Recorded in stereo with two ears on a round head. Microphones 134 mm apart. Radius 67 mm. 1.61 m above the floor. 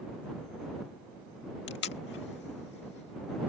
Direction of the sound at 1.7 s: 85° left.